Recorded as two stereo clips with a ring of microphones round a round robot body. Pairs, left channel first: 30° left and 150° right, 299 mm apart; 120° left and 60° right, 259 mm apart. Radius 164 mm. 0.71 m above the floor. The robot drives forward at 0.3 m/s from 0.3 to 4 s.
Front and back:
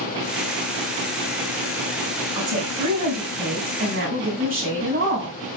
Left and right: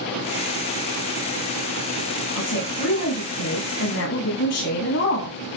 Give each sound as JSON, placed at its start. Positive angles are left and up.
{"t": 2.4, "sound": "a woman speaking", "azimuth_deg": 145, "distance_m": 5.0}